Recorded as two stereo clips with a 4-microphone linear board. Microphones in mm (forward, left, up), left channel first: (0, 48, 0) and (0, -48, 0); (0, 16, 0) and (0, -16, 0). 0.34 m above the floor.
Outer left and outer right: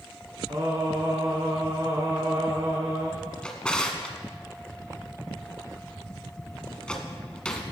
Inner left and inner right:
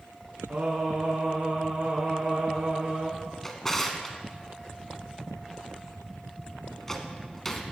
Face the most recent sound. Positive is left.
turn(degrees=10)  # may be behind; listen again after turning